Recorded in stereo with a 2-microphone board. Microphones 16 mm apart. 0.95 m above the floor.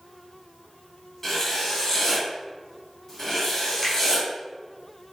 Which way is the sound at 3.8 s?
10° left (ahead or behind).